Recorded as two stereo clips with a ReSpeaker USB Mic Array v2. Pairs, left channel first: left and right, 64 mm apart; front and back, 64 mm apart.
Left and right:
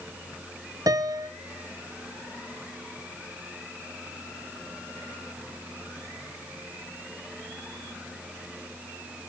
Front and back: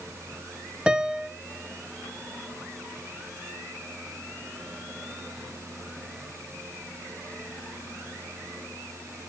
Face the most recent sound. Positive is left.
turn(degrees=-100)